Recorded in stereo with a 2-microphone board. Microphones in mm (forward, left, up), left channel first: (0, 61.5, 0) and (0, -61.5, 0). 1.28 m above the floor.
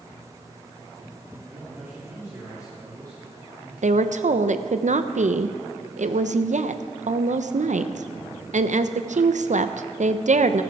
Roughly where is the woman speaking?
Right.